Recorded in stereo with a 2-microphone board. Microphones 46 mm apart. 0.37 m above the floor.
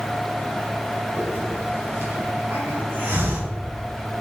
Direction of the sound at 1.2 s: 60° right (ahead or behind).